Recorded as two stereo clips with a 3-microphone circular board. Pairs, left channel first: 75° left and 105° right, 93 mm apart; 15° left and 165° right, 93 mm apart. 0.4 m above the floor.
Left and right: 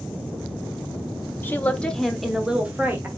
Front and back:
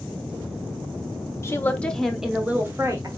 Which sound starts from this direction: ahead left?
A woman speaking, at 1.4 s.